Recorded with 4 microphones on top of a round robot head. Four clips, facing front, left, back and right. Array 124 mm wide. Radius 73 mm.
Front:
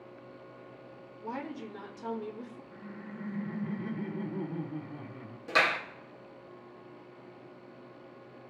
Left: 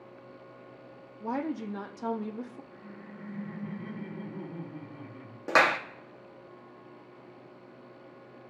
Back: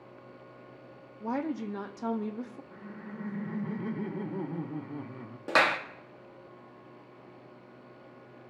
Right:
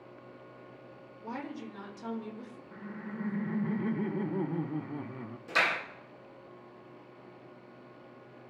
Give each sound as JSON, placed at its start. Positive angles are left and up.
{"t": 1.2, "sound": "a woman speaking", "azimuth_deg": 135, "distance_m": 1.4}
{"t": 2.7, "sound": "laughter", "azimuth_deg": -115, "distance_m": 1.0}
{"t": 5.5, "sound": "a clap", "azimuth_deg": 125, "distance_m": 1.0}